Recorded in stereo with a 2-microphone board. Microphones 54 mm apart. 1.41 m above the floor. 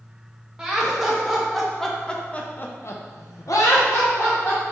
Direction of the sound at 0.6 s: 10° right (ahead or behind).